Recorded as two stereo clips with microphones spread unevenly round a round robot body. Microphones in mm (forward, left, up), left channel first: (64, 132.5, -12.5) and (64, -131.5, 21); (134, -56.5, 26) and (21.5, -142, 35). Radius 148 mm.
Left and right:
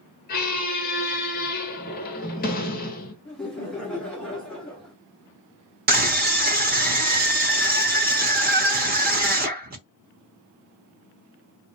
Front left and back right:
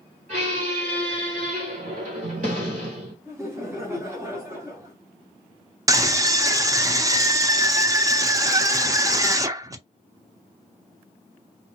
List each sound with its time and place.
0.3 s a squeak: 155° left, 1.0 m
3.2 s laughter: 160° left, 1.0 m
5.9 s a scream: 105° right, 0.7 m